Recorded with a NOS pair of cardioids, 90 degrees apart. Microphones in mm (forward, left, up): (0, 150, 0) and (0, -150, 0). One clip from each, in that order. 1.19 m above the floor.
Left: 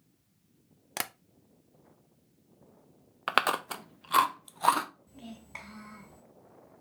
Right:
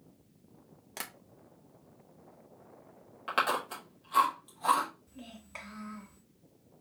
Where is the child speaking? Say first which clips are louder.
Left 2 dB; 15° left, 2.5 m.